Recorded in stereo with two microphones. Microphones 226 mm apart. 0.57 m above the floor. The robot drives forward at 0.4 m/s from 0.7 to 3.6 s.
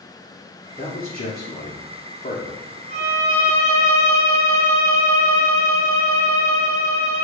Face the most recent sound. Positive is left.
turn(degrees=-30)  # may be behind; listen again after turning